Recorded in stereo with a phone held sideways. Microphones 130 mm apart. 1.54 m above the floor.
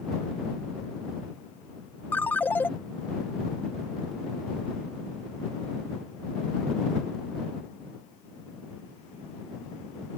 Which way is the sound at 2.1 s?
15° left (ahead or behind).